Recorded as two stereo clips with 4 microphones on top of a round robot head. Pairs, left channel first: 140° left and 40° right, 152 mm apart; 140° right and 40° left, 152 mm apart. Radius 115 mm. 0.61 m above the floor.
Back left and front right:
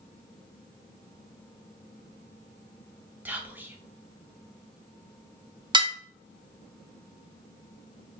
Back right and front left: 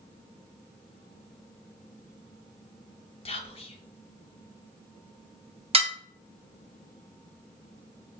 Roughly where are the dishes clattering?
Ahead.